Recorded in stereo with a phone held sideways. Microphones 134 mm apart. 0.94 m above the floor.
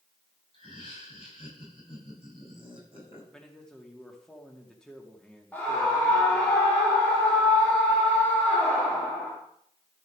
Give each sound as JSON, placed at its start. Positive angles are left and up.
{"t": 0.5, "sound": "laughter", "side_deg": 45, "distance_m": 5.5}
{"t": 3.3, "sound": "a man speaking", "side_deg": 5, "distance_m": 2.5}
{"t": 5.5, "sound": "a scream", "side_deg": 10, "distance_m": 2.5}